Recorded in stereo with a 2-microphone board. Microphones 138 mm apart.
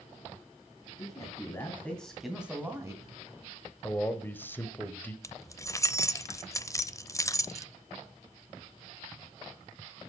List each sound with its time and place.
1.0 s a man speaking: 30° left (ahead or behind), 3 m; by 3.2 s 30° right (ahead or behind), 2.5 m
3.8 s a man speaking: 15° left (ahead or behind), 1.2 m
5.2 s keys jangling: 20° left (ahead or behind), 0.6 m